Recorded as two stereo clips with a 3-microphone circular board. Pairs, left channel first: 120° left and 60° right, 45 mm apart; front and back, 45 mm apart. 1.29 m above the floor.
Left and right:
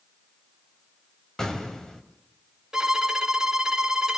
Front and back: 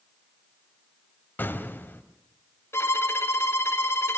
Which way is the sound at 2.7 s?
20° left.